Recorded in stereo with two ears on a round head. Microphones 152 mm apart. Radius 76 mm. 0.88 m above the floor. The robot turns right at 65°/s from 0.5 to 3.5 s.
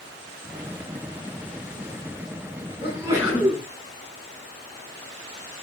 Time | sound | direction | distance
2.8 | a sneeze | 35° right | 8 m